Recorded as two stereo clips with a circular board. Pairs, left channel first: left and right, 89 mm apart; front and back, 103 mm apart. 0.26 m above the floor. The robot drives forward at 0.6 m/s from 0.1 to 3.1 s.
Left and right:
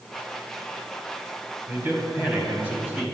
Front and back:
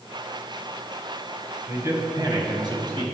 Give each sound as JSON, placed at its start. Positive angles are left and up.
{"t": 1.7, "sound": "a man speaking", "azimuth_deg": -135, "distance_m": 1.3}